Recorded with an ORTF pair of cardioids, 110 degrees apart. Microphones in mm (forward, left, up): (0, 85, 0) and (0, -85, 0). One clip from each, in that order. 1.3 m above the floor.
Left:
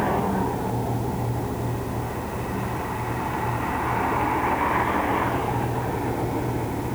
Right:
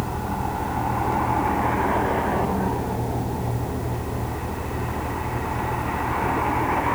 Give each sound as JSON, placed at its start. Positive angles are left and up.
{"t": 0.0, "sound": "a fan", "azimuth_deg": -20, "distance_m": 4.5}